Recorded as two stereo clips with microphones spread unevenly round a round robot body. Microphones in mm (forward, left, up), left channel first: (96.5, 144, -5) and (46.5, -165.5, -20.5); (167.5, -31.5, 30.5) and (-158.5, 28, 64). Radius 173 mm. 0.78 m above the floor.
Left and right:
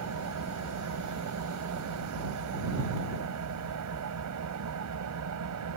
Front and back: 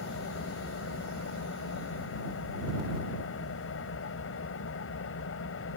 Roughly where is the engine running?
Ahead right.